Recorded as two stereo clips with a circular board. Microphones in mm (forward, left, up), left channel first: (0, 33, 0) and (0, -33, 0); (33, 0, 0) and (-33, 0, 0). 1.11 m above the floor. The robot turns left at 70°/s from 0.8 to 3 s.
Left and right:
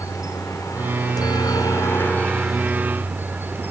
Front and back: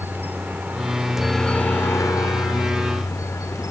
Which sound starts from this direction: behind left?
A helicopter, at 0.0 s.